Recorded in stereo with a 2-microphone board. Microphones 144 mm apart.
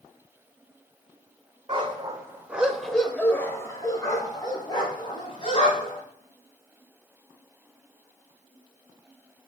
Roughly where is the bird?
I don't hear a bird.